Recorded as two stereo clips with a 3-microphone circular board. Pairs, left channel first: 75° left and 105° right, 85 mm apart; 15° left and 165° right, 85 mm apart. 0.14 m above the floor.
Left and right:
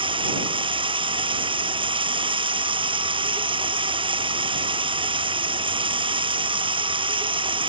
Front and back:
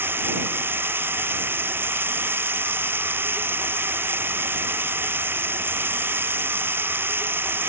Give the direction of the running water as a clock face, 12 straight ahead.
3 o'clock.